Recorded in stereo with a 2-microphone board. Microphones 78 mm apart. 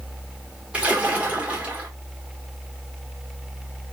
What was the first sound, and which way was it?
A splash, 15° right (ahead or behind).